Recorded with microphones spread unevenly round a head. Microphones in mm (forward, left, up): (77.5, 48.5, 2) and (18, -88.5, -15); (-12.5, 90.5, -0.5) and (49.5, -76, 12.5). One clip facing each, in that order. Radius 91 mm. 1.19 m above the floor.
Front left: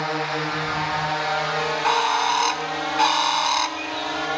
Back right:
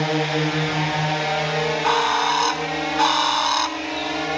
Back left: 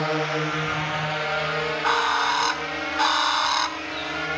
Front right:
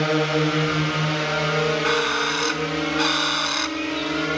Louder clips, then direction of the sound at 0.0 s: Back right 5 dB, front right 5 dB; 90° right.